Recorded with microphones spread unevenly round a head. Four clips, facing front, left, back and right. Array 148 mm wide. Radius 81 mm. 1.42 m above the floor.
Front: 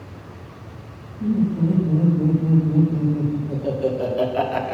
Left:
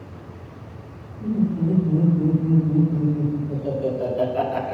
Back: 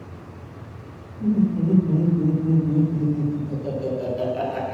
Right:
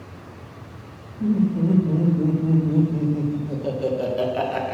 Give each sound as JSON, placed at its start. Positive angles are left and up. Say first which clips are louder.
{"t": 1.2, "sound": "laughter", "louder": "right 2 dB, even", "azimuth_deg": -90, "distance_m": 2.5}